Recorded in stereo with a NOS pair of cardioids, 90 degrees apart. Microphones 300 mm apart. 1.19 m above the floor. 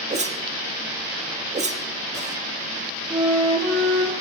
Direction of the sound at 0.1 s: 25° right.